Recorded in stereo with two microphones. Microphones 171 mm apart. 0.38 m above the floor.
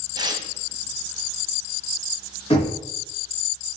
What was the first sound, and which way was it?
Tearing paper, 25° right (ahead or behind).